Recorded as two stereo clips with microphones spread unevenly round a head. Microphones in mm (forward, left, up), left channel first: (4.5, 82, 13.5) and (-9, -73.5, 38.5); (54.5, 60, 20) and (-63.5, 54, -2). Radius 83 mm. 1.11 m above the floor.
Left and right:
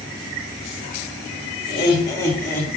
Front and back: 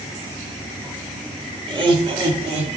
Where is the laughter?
140° left, 2.5 m; by 2.7 s 165° left, 3.5 m.